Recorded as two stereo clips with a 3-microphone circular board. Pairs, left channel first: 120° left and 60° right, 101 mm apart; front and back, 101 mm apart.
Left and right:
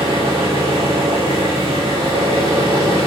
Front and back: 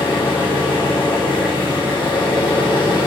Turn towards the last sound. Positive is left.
turn(degrees=-75)